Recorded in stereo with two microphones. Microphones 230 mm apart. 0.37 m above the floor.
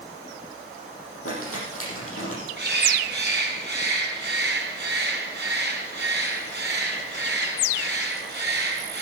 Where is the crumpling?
70° left (ahead or behind), 6.5 m.